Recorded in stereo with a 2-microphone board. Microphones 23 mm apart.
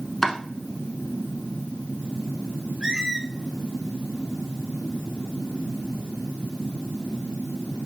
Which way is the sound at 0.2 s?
20° left (ahead or behind).